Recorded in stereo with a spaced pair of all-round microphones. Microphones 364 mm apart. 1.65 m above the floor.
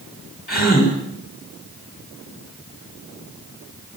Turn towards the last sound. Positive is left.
turn(degrees=25)  # may be behind; listen again after turning